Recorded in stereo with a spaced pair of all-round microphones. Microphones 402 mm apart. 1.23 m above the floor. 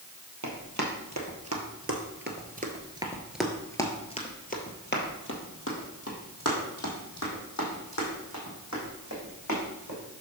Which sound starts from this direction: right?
Running footsteps, at 0.4 s.